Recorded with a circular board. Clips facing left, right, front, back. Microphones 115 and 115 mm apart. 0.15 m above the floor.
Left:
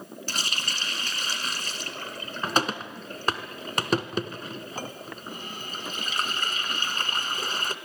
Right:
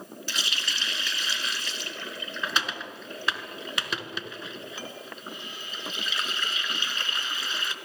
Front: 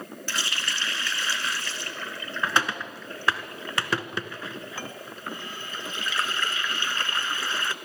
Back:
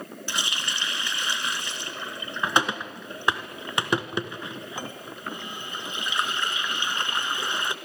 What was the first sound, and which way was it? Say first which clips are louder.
A running tap: left 1 dB, even; 115° left.